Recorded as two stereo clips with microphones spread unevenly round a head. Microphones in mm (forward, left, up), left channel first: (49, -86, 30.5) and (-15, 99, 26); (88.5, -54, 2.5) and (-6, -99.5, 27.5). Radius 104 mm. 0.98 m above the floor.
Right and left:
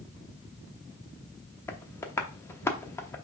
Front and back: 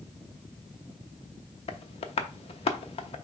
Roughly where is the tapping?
Ahead.